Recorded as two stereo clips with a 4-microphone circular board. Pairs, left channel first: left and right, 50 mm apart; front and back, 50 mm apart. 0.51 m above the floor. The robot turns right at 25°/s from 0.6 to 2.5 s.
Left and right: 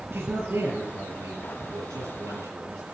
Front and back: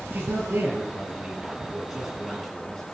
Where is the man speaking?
130° right, 6.5 m; by 3.0 s 85° right, 6.5 m.